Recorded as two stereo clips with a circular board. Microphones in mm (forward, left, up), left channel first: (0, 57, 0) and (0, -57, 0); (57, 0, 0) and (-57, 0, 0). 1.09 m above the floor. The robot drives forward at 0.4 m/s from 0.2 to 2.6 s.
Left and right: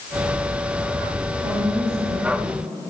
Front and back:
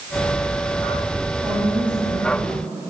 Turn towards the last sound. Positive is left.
turn(degrees=-105)